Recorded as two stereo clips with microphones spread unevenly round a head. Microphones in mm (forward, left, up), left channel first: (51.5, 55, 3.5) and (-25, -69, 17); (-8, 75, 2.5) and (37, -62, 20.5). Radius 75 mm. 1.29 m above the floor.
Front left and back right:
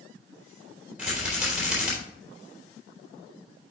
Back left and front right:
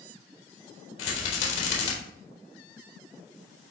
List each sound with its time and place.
1.0 s a rattle: 155° left, 3.5 m